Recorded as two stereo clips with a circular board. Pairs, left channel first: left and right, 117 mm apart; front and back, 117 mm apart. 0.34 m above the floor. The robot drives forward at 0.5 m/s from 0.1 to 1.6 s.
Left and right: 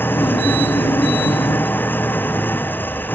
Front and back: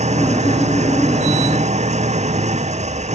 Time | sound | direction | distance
0.0 | an engine running | 165° left | ?